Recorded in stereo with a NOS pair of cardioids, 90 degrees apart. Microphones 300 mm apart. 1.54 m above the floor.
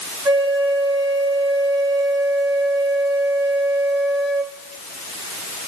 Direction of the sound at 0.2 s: 15° right.